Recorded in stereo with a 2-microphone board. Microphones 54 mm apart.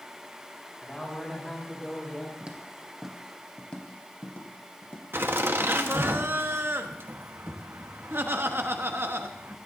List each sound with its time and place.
0.8 s a woman speaking: 10° left (ahead or behind), 4.5 m; by 2.3 s 20° left (ahead or behind), 3.5 m
2.4 s footsteps: 20° right (ahead or behind), 1.6 m; by 5.0 s 45° left (ahead or behind), 2.5 m
5.1 s laughter: 45° right (ahead or behind), 1.2 m